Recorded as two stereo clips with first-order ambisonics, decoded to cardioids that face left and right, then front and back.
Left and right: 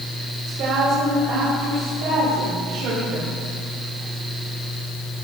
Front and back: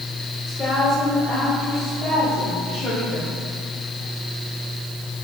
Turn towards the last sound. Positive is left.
turn(degrees=-75)